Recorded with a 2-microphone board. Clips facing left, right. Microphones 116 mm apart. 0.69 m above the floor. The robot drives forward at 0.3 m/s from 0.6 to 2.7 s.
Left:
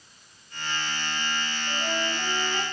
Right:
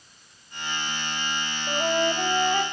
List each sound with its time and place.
1.7 s a flute: 50° right (ahead or behind), 3 m; by 2.6 s 55° right (ahead or behind), 2.5 m